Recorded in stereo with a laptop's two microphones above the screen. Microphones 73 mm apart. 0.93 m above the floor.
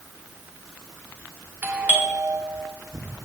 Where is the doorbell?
25° right (ahead or behind), 1.5 m.